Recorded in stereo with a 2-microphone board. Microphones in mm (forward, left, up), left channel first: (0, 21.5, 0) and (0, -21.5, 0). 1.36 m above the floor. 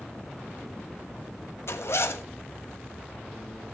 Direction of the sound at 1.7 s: 70° left (ahead or behind).